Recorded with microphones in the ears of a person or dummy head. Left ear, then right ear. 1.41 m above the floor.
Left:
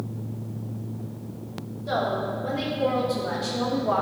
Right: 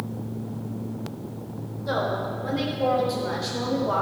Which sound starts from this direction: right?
A woman speaking, at 1.9 s.